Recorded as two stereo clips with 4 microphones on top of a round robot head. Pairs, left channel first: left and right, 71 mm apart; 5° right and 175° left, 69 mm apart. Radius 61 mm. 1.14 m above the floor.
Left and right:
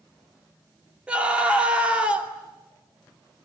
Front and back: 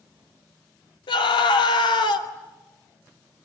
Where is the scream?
10° right, 2.5 m.